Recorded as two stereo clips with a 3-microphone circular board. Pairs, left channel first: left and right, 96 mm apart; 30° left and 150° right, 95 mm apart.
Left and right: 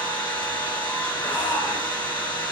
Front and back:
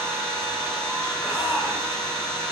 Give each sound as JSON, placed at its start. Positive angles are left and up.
{"t": 0.0, "sound": "an engine running", "azimuth_deg": 60, "distance_m": 1.7}
{"t": 1.2, "sound": "a shout", "azimuth_deg": 130, "distance_m": 0.7}